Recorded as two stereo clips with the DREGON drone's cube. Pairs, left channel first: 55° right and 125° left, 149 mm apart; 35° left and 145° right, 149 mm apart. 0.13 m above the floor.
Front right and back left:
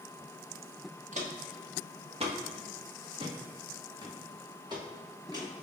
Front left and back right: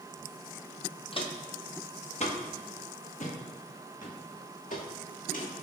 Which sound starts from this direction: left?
Footsteps, at 1.1 s.